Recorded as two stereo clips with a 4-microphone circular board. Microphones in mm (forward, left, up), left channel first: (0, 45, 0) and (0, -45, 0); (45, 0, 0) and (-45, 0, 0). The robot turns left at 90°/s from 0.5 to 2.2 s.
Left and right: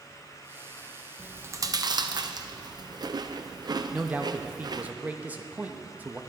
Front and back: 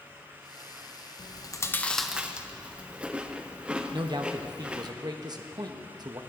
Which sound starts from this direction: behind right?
A man speaking, at 3.9 s.